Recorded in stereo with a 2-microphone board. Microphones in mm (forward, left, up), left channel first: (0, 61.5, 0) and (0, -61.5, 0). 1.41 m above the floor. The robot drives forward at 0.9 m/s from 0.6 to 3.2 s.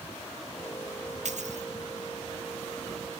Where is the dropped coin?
70° right (ahead or behind).